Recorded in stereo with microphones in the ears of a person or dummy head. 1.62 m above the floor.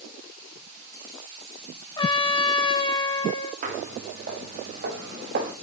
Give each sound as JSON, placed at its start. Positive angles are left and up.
{"t": 2.0, "sound": "a trumpet", "side_deg": 20, "distance_m": 1.0}
{"t": 3.6, "sound": "footsteps", "side_deg": -45, "distance_m": 7.5}